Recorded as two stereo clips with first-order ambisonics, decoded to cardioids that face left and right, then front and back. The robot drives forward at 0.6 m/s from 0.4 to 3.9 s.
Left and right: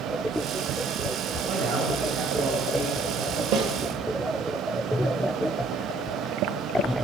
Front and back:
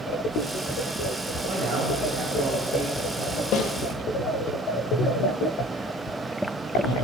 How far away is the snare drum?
About 3 m.